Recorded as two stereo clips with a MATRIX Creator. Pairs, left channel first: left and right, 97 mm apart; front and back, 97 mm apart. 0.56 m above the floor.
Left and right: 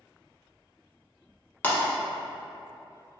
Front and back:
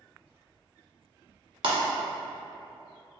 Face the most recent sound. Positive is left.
turn(degrees=160)